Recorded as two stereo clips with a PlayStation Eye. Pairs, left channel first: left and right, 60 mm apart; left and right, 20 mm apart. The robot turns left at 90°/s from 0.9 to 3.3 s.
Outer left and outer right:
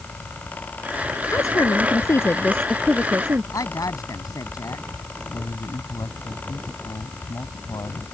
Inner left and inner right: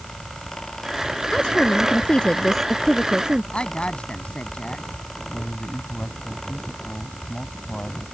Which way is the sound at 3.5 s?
75° left (ahead or behind).